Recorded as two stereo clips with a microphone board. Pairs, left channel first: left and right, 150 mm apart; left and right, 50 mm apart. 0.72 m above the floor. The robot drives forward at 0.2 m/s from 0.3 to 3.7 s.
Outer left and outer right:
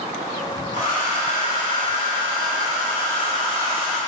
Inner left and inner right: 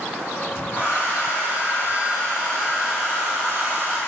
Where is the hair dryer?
55° left (ahead or behind), 2 m; by 4.0 s 45° left (ahead or behind), 2.5 m.